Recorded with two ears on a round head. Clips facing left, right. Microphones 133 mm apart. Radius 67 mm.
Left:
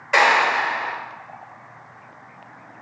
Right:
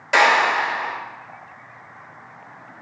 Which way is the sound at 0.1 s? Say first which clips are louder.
Right 1 dB; 45° right (ahead or behind).